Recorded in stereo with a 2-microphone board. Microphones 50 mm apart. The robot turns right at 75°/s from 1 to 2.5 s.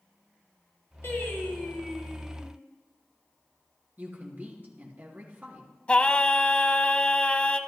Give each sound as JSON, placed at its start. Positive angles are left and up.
{"t": 1.0, "sound": "singing", "azimuth_deg": 100, "distance_m": 2.0}
{"t": 4.0, "sound": "a woman speaking", "side_deg": -35, "distance_m": 3.5}
{"t": 5.9, "sound": "singing", "side_deg": 25, "distance_m": 0.6}